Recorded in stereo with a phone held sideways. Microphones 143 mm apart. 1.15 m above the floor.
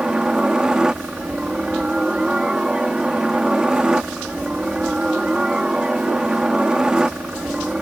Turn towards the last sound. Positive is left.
turn(degrees=-5)  # may be behind; listen again after turning